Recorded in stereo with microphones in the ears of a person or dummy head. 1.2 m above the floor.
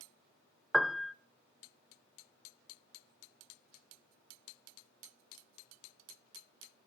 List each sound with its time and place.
0.7 s a piano: 5° left (ahead or behind), 0.6 m